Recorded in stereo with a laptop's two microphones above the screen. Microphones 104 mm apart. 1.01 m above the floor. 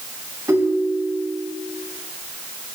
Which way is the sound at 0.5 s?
35° right (ahead or behind).